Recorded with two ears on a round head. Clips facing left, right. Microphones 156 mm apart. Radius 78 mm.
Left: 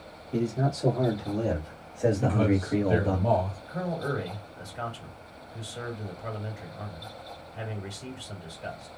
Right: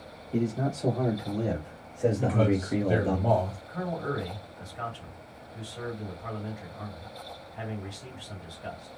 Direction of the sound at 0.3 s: 25° left (ahead or behind).